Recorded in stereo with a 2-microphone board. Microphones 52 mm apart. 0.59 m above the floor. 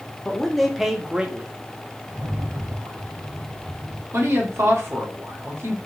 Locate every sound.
0.2 s a man speaking: 10° left (ahead or behind), 1.2 m; by 1.5 s 25° right (ahead or behind), 0.8 m
2.1 s a rattle: 65° right (ahead or behind), 0.8 m
4.1 s a woman speaking: 55° right (ahead or behind), 1.7 m